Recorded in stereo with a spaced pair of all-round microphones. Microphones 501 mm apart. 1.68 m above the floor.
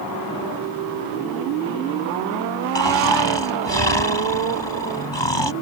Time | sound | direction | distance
2.8 | snoring | 60° left (ahead or behind) | ?